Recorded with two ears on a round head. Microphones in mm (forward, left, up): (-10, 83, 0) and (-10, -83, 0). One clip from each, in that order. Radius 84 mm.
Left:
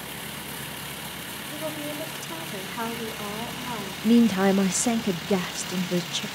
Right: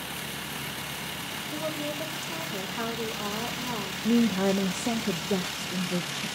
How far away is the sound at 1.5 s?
About 4 m.